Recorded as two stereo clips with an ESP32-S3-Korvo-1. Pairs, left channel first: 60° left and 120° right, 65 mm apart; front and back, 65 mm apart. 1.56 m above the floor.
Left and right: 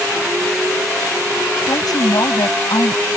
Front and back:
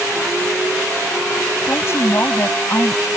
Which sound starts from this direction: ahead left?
A woman speaking, at 1.7 s.